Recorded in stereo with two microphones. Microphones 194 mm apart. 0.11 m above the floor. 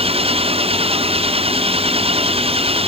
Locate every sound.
0.0 s an engine running: 30° right (ahead or behind)